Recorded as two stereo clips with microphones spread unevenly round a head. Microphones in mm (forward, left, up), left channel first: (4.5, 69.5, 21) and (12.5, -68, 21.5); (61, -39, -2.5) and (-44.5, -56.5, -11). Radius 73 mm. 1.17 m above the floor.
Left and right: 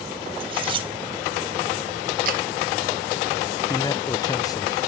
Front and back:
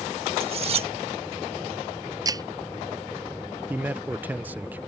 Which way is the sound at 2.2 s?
115° right.